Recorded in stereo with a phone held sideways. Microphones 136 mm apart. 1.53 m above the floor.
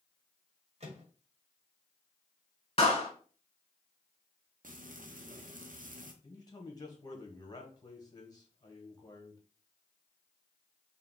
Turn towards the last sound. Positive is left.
turn(degrees=30)  # may be behind; listen again after turning